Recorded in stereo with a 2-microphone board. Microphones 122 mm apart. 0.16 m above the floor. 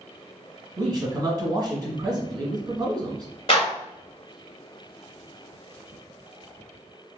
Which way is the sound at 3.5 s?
45° left (ahead or behind).